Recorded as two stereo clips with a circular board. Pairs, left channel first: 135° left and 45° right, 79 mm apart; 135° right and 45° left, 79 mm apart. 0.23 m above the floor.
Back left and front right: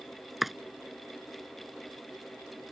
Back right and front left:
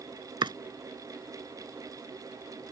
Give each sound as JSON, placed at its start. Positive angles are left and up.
{"t": 0.4, "sound": "chopping", "azimuth_deg": 45}